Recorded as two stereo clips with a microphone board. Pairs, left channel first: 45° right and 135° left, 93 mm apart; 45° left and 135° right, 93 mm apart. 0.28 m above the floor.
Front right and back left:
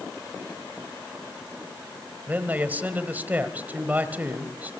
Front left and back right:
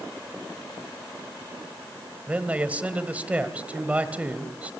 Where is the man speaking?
175° left, 1.2 m.